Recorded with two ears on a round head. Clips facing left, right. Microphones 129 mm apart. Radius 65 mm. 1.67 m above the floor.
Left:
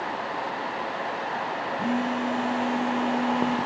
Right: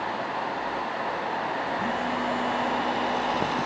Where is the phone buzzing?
20° left (ahead or behind), 2 m.